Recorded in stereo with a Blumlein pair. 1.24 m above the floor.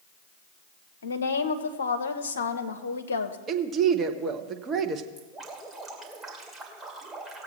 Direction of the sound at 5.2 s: 10° right.